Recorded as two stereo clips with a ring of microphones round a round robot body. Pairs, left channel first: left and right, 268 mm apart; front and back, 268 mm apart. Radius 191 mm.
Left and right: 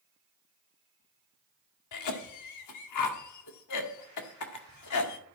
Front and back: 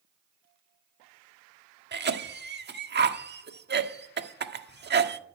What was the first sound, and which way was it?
A cough, 125° left.